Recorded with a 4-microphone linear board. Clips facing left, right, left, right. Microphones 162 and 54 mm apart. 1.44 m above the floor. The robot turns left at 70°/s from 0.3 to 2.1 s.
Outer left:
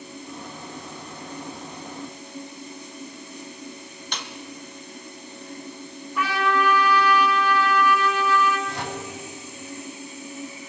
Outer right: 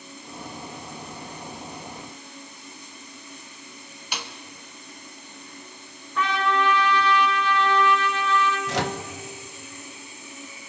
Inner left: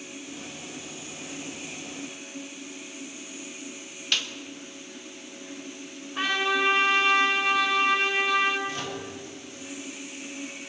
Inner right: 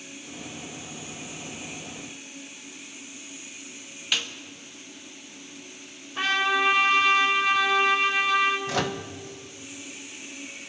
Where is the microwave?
75° right (ahead or behind), 0.9 m.